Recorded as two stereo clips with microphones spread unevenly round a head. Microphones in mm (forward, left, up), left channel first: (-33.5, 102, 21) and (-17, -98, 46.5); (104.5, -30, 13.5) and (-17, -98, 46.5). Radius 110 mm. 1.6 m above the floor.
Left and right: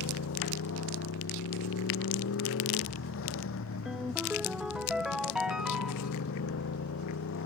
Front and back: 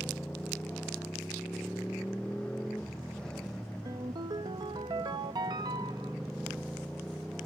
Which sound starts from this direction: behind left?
A motorcycle, at 0.0 s.